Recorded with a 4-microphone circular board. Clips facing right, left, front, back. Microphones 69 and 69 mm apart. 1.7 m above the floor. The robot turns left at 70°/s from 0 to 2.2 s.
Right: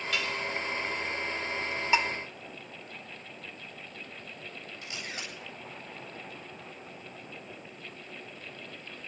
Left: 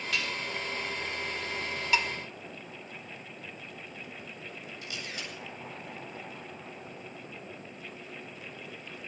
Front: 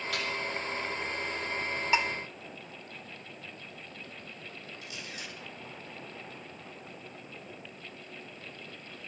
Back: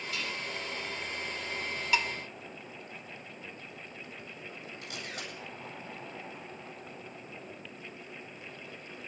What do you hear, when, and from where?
0.1 s dishes clattering: straight ahead, 3.5 m; by 0.4 s 20° right, 3.5 m
1.9 s dishes clattering: 40° right, 0.8 m; by 2.1 s 50° right, 0.8 m
4.8 s a camera shutter: 140° right, 7.5 m